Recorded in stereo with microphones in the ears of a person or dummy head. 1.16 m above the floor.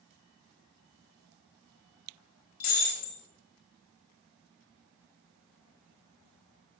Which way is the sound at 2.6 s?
50° left (ahead or behind).